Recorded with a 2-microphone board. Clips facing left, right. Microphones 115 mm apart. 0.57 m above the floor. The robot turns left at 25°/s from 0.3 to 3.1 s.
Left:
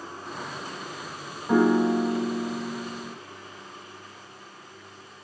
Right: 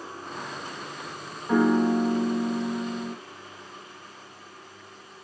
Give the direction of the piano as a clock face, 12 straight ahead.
12 o'clock.